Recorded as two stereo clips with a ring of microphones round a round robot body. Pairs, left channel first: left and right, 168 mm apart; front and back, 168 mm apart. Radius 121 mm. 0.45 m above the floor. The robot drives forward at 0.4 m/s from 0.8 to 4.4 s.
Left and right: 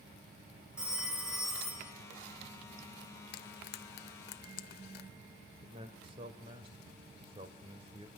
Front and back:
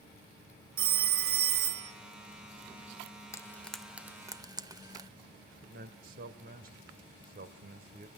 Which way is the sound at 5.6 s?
150° right.